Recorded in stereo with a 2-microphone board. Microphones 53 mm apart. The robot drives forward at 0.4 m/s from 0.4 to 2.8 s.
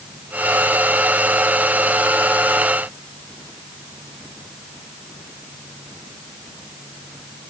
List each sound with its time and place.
Only background noise.